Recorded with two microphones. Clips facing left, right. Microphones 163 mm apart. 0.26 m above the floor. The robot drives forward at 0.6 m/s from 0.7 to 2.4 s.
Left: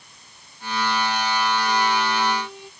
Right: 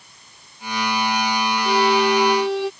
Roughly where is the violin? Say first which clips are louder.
Right 5 dB; right.